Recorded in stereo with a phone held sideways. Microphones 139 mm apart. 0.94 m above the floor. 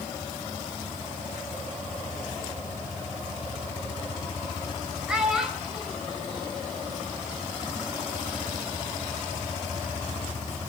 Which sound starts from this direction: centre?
A child speaking, at 5.1 s.